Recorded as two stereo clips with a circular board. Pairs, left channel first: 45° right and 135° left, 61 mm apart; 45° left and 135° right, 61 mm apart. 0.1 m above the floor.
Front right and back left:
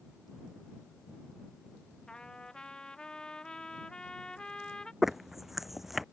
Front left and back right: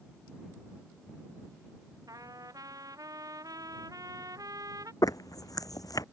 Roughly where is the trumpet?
Behind right.